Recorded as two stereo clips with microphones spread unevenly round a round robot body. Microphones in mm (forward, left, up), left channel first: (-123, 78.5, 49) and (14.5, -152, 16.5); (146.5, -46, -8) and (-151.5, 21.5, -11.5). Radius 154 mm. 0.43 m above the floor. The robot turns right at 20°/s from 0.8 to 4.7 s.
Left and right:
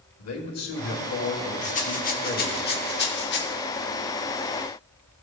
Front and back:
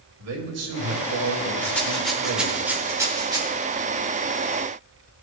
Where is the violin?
No violin in this recording.